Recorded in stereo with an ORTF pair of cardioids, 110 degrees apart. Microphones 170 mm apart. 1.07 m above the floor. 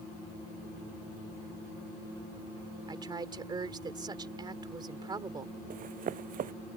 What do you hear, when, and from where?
2.9 s a woman speaking: 25° right
5.7 s running footsteps: 55° right